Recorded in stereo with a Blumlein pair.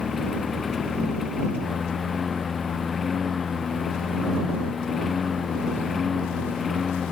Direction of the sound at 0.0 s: 20° left.